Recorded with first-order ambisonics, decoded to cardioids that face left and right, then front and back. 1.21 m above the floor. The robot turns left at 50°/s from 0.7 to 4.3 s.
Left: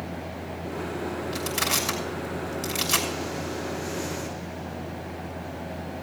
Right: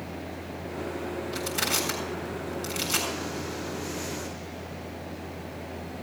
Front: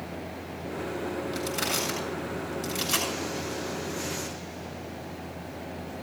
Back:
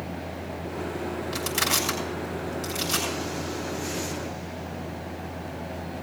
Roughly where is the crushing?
Behind left.